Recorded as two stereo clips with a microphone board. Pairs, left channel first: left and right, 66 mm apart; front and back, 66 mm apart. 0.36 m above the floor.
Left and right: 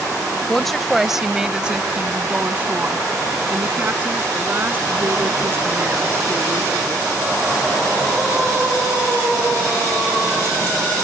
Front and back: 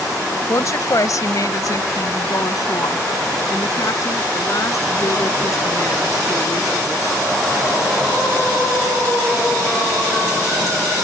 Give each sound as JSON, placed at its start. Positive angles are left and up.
{"t": 0.5, "sound": "a woman speaking", "azimuth_deg": 10}